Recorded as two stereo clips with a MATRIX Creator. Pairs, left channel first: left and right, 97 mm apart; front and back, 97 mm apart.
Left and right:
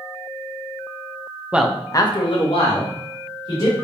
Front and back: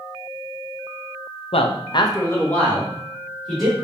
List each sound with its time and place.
1.5 s a man speaking: 15° right, 0.7 m; by 3.7 s 90° left, 2.5 m